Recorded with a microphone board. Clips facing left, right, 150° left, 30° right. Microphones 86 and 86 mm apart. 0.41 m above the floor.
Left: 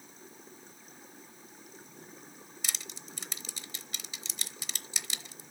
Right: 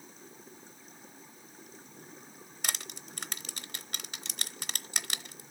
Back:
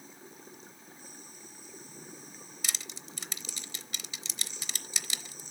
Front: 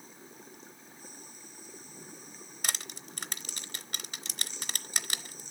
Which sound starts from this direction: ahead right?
Crushing, at 2.6 s.